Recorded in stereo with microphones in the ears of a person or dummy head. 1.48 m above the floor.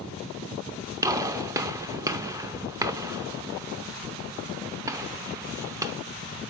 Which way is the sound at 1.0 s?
15° right (ahead or behind).